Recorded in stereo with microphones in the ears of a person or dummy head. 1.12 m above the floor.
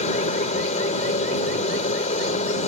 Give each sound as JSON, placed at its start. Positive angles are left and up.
{"t": 0.0, "sound": "a helicopter", "side_deg": 30}